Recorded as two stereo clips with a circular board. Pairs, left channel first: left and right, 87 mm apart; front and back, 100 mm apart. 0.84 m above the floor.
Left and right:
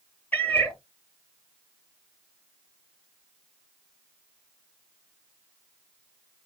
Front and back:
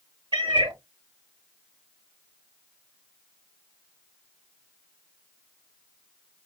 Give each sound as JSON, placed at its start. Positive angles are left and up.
{"t": 0.3, "sound": "a cat meowing", "azimuth_deg": 155, "distance_m": 0.9}